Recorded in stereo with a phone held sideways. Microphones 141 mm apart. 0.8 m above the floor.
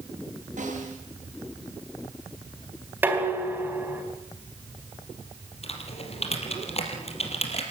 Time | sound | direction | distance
0.6 | a snare drum | 65° right (ahead or behind) | 9.5 m
3.0 | dishes clattering | 15° right (ahead or behind) | 4 m
5.6 | typing on a keyboard | 50° left (ahead or behind) | 4.5 m